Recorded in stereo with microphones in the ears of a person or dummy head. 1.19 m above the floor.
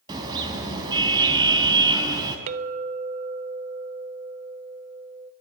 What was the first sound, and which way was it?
A car horn, 25° right (ahead or behind).